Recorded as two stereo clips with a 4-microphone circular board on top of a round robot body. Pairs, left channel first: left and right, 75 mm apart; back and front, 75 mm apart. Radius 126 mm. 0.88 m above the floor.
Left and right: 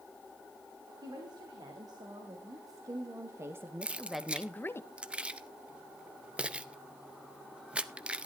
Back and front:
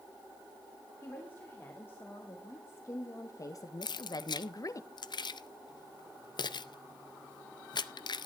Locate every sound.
1.0 s a woman speaking: 115° right, 3 m; by 4.8 s 140° left, 0.9 m
3.8 s keys jangling: 165° right, 0.7 m